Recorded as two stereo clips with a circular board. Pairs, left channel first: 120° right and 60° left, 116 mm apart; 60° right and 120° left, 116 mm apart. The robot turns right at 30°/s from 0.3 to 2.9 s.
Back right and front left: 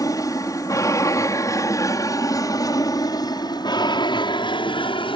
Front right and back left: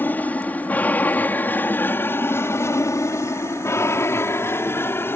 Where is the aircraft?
115° right; by 5.2 s 125° right.